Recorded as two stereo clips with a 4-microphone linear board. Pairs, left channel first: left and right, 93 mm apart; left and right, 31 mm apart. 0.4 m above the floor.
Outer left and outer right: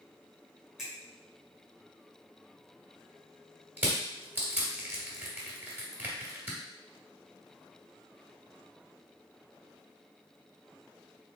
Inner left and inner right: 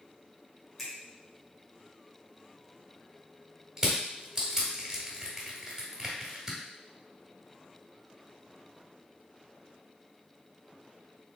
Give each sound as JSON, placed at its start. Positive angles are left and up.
{"t": 0.8, "sound": "a finger snap", "side_deg": -10, "distance_m": 1.6}
{"t": 3.8, "sound": "crushing", "side_deg": -20, "distance_m": 1.6}